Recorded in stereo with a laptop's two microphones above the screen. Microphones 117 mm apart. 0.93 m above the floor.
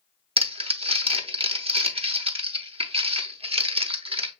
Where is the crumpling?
55° right (ahead or behind), 0.8 m.